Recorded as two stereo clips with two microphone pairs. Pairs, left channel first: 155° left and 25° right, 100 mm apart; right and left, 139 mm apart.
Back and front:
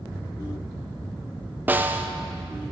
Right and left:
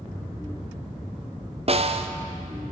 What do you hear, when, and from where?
1.7 s a snare drum: 50° left, 0.5 m